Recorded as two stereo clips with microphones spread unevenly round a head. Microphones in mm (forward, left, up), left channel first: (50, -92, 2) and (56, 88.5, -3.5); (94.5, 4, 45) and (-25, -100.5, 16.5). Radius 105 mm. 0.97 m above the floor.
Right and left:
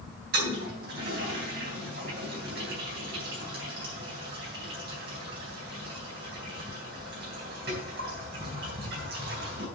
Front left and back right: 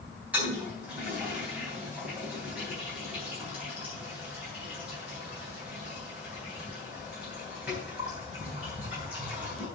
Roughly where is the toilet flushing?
Behind left.